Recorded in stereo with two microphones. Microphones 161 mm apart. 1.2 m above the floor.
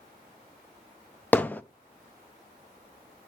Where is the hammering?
10° left (ahead or behind), 0.5 m.